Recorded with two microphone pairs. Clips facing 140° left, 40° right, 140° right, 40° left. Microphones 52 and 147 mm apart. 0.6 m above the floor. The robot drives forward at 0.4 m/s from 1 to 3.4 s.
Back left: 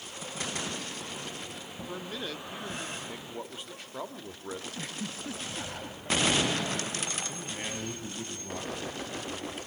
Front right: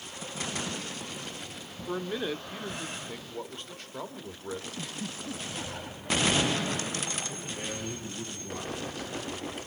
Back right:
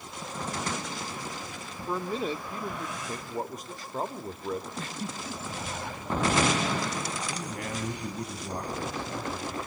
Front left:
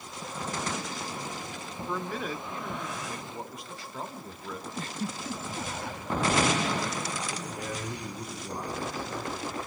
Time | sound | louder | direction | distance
1.9 | a man speaking | front right 7 dB, back right 3 dB | 85° right | 0.9 m
4.8 | a giggle | even, front left 1 dB | 90° left | 2.0 m
7.3 | a man speaking | even, back right 1 dB | 160° right | 6 m